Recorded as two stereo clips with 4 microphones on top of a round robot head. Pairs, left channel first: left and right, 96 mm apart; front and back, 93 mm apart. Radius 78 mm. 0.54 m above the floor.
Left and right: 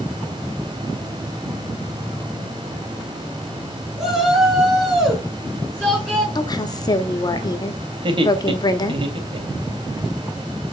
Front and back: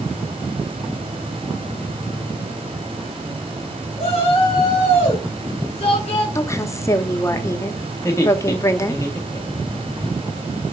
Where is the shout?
5° right, 8 m; by 6.2 s 10° right, 5.5 m.